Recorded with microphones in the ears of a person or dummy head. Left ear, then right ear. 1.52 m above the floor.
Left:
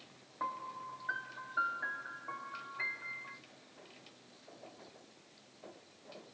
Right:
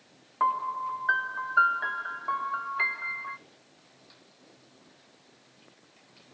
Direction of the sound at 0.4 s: 55° right (ahead or behind).